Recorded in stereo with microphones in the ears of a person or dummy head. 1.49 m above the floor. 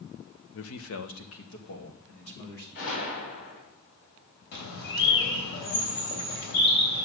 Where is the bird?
65° left (ahead or behind), 3 m.